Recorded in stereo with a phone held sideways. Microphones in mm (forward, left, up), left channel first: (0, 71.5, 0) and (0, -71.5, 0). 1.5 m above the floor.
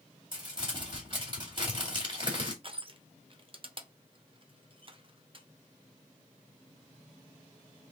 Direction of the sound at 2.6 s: 40° right (ahead or behind).